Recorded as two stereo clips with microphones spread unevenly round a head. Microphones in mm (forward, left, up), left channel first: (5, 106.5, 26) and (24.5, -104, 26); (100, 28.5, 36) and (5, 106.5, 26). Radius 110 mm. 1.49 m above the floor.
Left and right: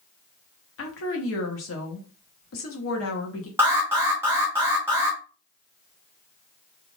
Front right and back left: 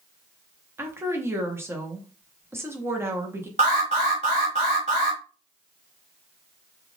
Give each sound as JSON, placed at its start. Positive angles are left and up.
{"t": 0.8, "sound": "a woman speaking", "azimuth_deg": 70, "distance_m": 1.0}
{"t": 3.6, "sound": "an alarm", "azimuth_deg": -165, "distance_m": 0.7}